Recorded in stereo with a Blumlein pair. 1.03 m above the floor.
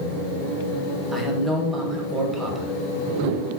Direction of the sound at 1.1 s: 10° right.